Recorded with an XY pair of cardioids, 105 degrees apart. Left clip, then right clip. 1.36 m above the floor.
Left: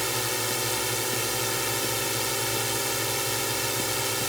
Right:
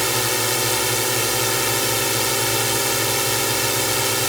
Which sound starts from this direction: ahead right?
A drone, at 0.0 s.